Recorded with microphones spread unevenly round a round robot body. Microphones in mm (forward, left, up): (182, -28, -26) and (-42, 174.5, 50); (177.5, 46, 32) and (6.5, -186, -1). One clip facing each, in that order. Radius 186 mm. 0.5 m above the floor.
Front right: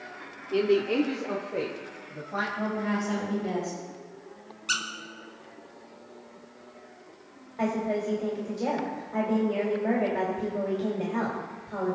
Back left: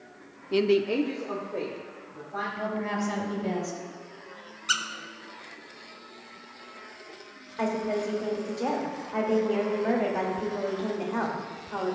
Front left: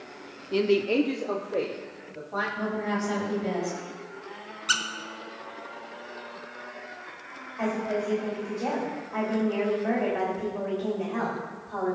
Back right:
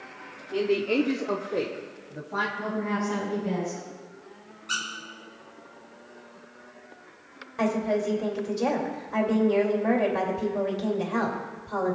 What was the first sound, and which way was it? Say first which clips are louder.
A man speaking: even, front left 1 dB; 90° left.